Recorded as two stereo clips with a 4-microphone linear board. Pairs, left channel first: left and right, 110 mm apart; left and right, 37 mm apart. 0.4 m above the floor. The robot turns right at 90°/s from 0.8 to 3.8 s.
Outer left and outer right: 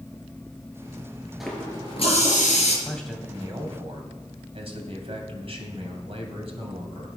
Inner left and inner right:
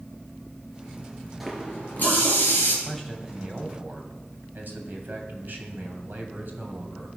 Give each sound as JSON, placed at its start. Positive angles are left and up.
{"t": 1.4, "sound": "a running tap", "azimuth_deg": -5, "distance_m": 5.0}
{"t": 2.9, "sound": "a man speaking", "azimuth_deg": 160, "distance_m": 2.5}